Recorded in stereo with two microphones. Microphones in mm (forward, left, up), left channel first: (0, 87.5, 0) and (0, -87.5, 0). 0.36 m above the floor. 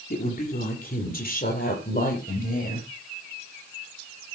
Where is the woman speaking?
55° left (ahead or behind), 7.5 m.